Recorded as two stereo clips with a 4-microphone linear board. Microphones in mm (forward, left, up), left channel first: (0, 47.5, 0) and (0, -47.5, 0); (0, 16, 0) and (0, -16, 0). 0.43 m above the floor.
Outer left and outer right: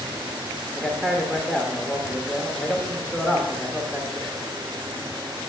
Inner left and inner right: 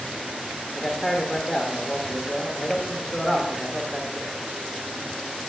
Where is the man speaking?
5° right (ahead or behind), 1.1 m.